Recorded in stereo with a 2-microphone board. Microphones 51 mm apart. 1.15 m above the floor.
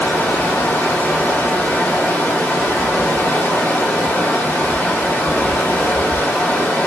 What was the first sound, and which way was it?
Running water, 50° left (ahead or behind).